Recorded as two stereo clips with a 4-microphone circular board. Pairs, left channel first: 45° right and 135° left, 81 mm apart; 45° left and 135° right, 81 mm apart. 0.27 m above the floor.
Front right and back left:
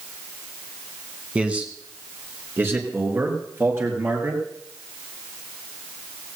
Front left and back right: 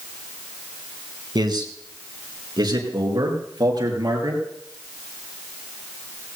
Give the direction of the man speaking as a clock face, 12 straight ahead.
5 o'clock.